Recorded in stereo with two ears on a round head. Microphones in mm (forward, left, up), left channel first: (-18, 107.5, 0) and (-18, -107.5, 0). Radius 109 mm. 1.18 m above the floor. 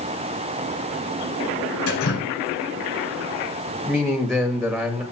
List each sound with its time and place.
1.9 s dripping: 70° left (ahead or behind), 4 m
3.9 s a man speaking: centre (ahead or behind), 2 m